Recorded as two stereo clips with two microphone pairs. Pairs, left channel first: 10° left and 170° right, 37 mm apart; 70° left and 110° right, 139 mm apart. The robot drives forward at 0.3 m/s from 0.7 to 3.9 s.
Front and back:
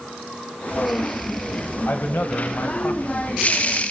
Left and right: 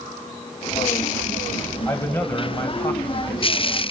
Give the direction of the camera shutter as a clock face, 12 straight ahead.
No camera shutter in this recording.